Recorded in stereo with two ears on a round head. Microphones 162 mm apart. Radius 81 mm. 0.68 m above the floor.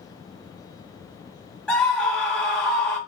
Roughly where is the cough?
I don't hear a cough.